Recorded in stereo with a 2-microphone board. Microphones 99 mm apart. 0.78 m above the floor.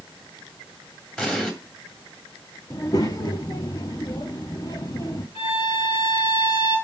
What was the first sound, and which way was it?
An explosion, 10° left (ahead or behind).